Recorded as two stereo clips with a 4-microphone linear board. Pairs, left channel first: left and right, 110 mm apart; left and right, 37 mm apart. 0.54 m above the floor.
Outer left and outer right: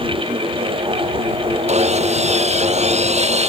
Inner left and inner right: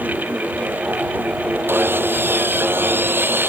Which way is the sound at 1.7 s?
80° right.